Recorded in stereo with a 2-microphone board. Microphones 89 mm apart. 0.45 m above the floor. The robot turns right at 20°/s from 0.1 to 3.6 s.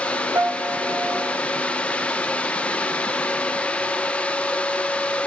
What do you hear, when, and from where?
0.3 s a piano: 35° right (ahead or behind), 1.0 m; by 1.3 s 20° right (ahead or behind), 1.0 m